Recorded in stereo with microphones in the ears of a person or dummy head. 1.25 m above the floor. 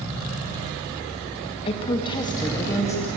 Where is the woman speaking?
30° left (ahead or behind), 2 m; by 3.1 s 15° left (ahead or behind), 2.5 m.